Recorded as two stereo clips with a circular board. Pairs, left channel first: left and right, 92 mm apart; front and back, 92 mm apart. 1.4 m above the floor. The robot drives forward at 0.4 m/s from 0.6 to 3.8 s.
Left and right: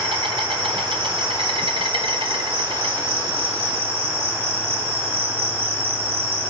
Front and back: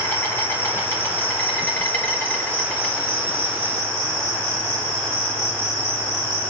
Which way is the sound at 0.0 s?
70° right.